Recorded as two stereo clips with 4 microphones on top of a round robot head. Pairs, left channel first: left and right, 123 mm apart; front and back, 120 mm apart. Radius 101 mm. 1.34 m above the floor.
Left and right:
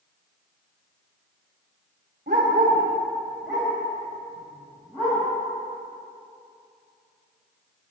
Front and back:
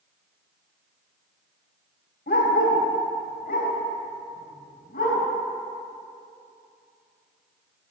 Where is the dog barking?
40° right, 1.8 m; by 5.2 s 10° left, 5 m.